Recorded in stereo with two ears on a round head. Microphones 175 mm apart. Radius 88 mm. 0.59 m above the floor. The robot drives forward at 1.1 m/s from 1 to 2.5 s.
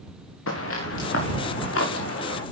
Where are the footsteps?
75° left (ahead or behind), 4.5 m; by 2.4 s 70° left (ahead or behind), 5.5 m.